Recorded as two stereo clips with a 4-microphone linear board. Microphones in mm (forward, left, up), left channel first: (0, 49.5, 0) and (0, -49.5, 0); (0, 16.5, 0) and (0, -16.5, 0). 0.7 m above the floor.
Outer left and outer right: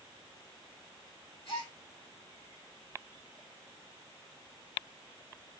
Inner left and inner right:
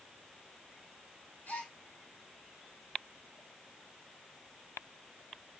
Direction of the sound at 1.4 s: 60° left (ahead or behind).